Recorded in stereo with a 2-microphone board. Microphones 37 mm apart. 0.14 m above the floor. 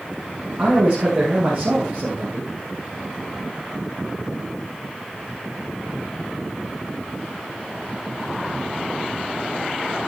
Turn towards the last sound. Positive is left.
turn(degrees=-45)  # may be behind; listen again after turning